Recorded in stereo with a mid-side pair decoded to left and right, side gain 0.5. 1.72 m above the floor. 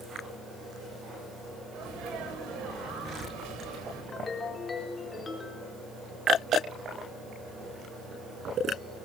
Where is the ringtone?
30° left, 4 m.